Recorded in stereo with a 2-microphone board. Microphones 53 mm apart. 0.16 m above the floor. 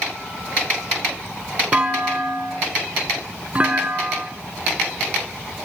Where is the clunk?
25° right (ahead or behind), 0.9 m.